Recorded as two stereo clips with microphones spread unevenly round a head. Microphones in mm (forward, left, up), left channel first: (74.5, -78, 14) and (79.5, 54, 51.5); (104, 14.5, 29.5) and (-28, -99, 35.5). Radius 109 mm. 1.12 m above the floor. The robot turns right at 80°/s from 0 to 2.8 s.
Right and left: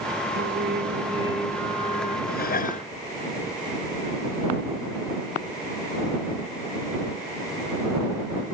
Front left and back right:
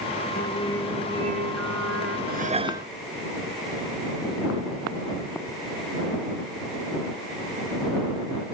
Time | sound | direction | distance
0.3 | singing | 90° left | ?
2.3 | dishes clattering | 105° right | ?